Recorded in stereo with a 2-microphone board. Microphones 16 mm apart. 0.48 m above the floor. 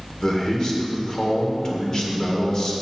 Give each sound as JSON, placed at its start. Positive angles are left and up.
{"t": 0.2, "sound": "a man speaking", "side_deg": 40, "distance_m": 1.7}